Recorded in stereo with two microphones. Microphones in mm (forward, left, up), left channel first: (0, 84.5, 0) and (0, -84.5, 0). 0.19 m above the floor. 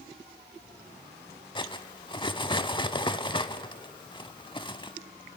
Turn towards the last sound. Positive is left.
turn(degrees=25)  # may be behind; listen again after turning